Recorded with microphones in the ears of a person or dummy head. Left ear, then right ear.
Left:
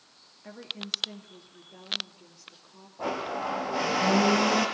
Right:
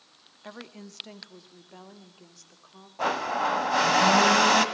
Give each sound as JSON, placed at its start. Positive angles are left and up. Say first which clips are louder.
{"t": 0.4, "sound": "a woman speaking", "louder": "left 6 dB", "side_deg": -50, "distance_m": 2.0}
{"t": 3.0, "sound": "a blender", "louder": "right 5 dB", "side_deg": -70, "distance_m": 2.5}